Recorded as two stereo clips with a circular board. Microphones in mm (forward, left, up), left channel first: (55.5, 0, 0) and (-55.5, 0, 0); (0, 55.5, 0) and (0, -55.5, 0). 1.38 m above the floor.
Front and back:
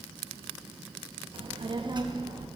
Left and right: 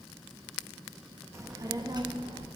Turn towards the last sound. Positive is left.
turn(degrees=-130)